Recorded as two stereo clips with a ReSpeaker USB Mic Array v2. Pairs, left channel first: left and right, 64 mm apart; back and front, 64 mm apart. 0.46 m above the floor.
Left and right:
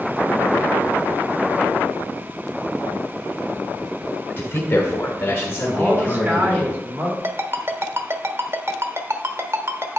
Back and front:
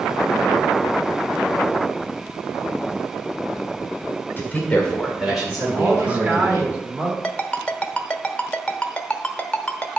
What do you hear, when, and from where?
4.4 s a man speaking: 135° left, 1.9 m; by 6.7 s 25° left, 3 m
5.7 s a man speaking: 55° right, 1.6 m
7.2 s a ringtone: 115° right, 0.9 m